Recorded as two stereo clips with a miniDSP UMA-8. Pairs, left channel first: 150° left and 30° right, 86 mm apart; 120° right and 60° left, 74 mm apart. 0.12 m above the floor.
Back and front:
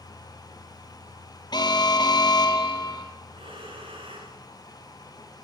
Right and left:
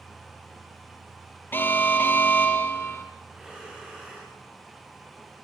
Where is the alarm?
Straight behind, 3.5 m.